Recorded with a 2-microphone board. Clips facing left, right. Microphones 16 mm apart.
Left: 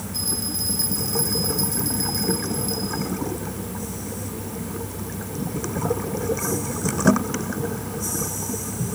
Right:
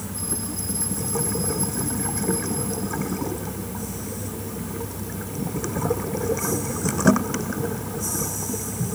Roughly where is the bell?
Left.